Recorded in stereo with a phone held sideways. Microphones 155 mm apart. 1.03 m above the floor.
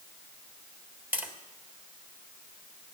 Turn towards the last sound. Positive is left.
turn(degrees=-10)  # may be behind; listen again after turning